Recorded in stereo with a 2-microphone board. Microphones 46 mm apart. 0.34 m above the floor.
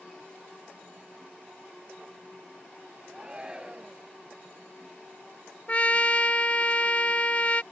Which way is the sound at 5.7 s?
30° left (ahead or behind).